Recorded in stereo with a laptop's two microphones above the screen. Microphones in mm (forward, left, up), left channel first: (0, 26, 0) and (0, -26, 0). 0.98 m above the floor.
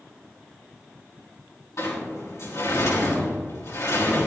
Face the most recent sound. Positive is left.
turn(degrees=65)  # may be behind; listen again after turning